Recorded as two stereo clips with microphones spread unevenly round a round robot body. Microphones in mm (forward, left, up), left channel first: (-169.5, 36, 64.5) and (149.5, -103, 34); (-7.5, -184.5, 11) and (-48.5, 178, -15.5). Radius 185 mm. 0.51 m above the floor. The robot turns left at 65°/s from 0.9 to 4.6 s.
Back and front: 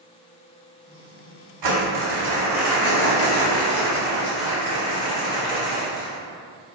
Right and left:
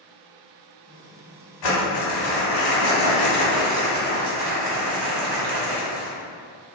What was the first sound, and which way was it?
Crumpling, 50° right.